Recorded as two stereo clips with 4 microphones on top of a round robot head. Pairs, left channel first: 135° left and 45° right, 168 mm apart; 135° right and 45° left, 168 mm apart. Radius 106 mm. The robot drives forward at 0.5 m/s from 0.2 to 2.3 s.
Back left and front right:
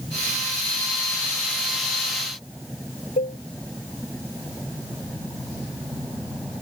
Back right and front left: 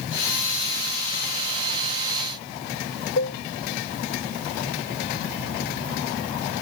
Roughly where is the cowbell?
Behind.